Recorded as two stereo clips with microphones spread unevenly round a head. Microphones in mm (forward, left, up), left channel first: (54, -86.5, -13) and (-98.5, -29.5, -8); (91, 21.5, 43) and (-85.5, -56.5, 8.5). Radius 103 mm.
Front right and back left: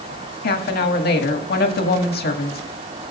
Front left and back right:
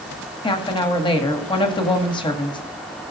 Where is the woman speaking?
45° right, 1.7 m.